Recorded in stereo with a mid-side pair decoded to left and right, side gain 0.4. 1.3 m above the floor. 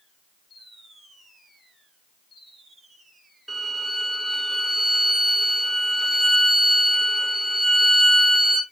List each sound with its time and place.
3.5 s a violin: 10° right, 2 m